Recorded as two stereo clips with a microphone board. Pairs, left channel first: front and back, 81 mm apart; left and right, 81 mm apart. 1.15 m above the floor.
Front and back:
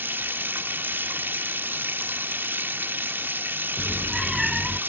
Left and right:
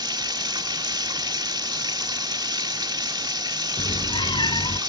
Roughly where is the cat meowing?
Left.